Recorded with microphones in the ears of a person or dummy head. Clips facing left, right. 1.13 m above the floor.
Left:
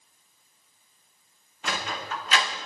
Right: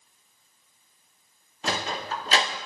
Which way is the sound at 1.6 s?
30° right (ahead or behind).